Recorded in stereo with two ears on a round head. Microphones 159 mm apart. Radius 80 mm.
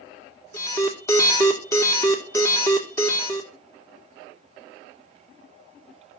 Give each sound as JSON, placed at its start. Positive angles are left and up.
{"t": 0.5, "sound": "an alarm", "side_deg": 15, "distance_m": 1.8}